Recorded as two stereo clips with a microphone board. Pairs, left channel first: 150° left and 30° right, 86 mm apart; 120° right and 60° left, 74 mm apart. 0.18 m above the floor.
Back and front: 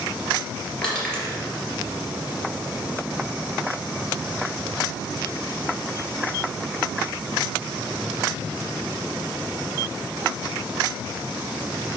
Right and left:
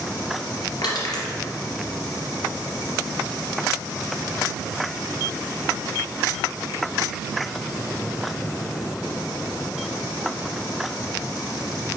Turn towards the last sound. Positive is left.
turn(degrees=-130)